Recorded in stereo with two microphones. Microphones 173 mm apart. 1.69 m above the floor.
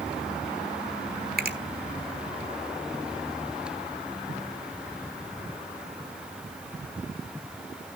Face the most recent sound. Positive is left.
turn(degrees=-60)  # may be behind; listen again after turning